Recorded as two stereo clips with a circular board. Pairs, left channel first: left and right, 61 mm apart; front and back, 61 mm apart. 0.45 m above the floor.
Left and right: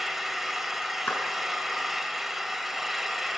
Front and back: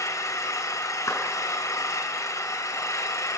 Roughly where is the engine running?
Ahead.